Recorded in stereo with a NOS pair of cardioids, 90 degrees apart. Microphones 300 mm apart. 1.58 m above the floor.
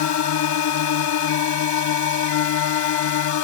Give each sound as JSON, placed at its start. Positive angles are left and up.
{"t": 0.0, "sound": "a drone", "azimuth_deg": 70}